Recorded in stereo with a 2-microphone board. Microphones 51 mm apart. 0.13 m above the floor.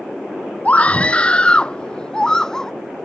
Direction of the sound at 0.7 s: 30° left (ahead or behind).